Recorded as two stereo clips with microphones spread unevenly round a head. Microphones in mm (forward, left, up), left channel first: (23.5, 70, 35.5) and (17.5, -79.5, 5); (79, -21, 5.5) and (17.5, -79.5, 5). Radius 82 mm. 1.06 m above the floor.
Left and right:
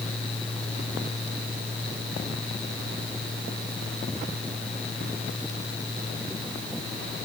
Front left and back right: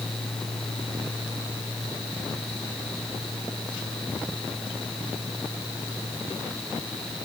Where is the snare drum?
No snare drum in this recording.